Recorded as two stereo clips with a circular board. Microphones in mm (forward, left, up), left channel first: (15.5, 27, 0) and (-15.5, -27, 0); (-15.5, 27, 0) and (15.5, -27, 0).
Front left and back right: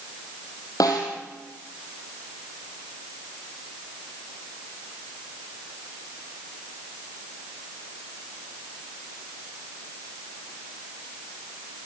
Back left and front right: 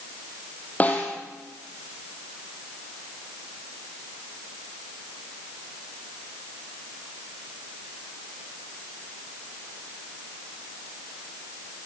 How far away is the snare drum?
About 4.5 m.